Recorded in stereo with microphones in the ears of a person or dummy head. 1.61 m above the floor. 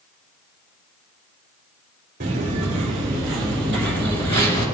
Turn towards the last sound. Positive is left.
turn(degrees=25)  # may be behind; listen again after turning